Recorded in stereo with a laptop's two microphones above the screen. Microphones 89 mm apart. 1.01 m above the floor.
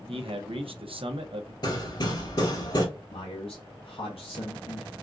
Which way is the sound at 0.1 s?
75° right (ahead or behind).